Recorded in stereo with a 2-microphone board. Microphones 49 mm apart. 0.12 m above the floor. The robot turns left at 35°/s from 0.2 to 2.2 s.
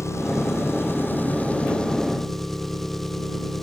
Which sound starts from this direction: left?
An engine running, at 0.0 s.